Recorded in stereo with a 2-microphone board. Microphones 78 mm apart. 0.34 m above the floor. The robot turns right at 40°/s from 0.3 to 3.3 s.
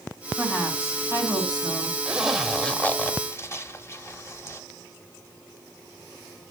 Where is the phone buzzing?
I don't hear a phone buzzing.